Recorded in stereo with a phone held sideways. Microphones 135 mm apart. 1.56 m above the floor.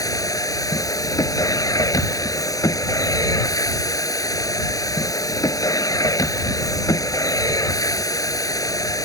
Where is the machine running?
25° left (ahead or behind).